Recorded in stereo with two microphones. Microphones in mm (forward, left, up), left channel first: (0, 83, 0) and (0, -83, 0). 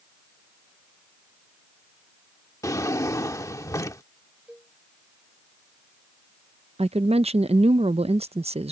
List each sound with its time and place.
2.6 s a drawer: 20° left (ahead or behind)
4.5 s a cowbell: 5° right (ahead or behind)
6.8 s a woman speaking: 40° right (ahead or behind)